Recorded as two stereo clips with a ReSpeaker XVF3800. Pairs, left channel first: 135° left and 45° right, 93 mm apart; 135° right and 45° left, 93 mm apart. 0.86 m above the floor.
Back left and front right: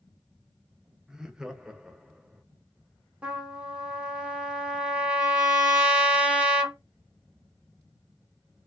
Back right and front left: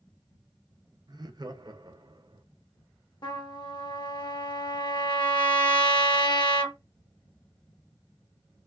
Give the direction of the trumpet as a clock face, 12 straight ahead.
4 o'clock.